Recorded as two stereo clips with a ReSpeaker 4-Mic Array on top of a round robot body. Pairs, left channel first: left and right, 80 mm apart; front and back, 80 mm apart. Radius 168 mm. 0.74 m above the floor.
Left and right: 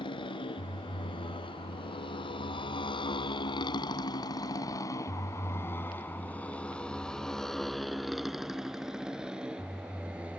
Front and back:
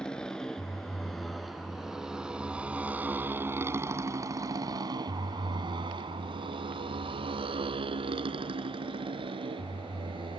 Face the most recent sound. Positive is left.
turn(degrees=-165)